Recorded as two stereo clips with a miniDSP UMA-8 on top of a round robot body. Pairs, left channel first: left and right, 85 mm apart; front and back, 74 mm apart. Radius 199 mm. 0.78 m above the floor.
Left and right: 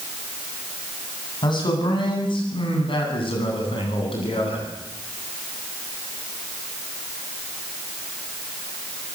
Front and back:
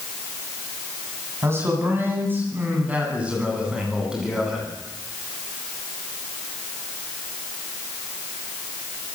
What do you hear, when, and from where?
1.4 s a man speaking: 125° left, 9 m; by 4.7 s 95° left, 10.5 m